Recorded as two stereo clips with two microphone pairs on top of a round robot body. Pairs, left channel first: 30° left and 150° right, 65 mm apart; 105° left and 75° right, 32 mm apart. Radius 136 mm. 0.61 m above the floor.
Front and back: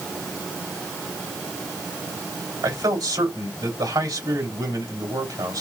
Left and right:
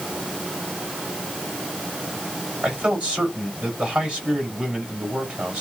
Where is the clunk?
No clunk in this recording.